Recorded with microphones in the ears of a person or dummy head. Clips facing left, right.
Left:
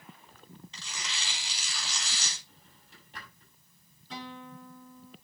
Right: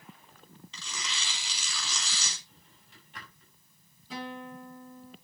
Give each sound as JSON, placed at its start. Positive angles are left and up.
{"t": 0.7, "sound": "tearing paper", "side_deg": -75, "distance_m": 3.5}
{"t": 2.5, "sound": "a drawer", "side_deg": 35, "distance_m": 6.5}
{"t": 4.1, "sound": "a guitar", "side_deg": -5, "distance_m": 6.5}